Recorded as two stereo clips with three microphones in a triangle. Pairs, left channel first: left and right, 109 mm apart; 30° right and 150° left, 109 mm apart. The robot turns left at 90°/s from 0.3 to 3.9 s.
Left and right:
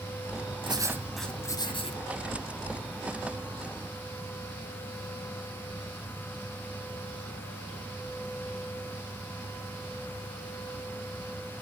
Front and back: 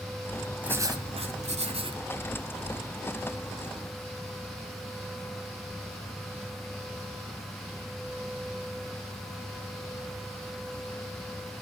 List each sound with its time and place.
0.6 s writing: 130° right, 1.9 m; by 2.0 s 105° left, 1.9 m